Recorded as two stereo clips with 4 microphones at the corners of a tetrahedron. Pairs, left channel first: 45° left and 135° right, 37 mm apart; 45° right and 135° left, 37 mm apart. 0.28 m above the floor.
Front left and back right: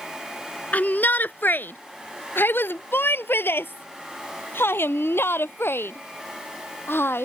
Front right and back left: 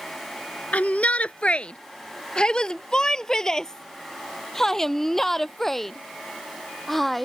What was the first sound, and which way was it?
A shout, 5° left.